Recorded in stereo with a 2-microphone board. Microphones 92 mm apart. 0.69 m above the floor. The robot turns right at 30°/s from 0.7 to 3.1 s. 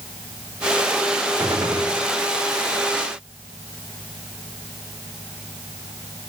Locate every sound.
1.4 s a gunshot: 30° right (ahead or behind), 1.4 m; by 1.9 s 45° right (ahead or behind), 1.4 m